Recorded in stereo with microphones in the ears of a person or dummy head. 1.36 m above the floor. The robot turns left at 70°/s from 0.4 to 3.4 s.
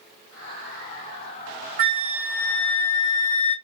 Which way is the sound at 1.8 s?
125° right.